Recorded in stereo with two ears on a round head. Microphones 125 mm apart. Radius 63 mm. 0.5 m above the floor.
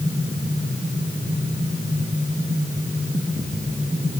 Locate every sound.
Only background noise.